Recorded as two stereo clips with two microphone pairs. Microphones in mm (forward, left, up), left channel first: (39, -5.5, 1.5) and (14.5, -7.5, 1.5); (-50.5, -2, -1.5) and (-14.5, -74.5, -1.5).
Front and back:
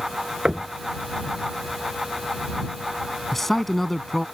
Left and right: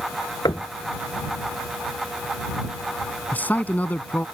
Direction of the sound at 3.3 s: 75° left.